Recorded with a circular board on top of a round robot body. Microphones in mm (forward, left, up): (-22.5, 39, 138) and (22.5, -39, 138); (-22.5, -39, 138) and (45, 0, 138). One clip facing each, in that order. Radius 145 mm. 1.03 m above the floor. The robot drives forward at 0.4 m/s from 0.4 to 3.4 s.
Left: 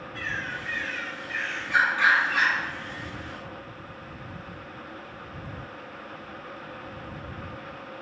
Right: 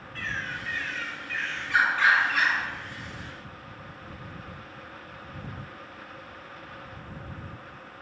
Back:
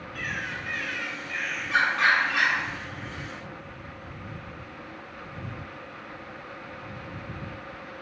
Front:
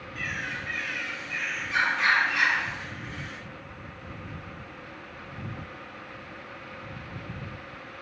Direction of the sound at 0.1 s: 170° right.